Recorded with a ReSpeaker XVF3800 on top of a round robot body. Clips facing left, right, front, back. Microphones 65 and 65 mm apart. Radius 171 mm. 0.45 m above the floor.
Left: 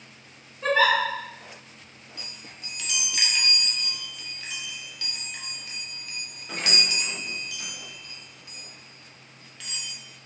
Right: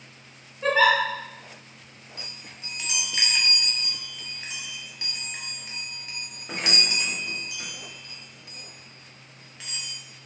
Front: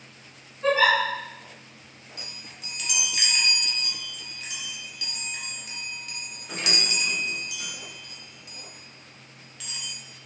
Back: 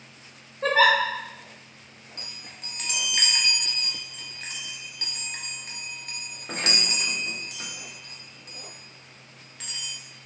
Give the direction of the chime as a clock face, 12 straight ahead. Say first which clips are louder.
Right 1 dB, even; 5 o'clock.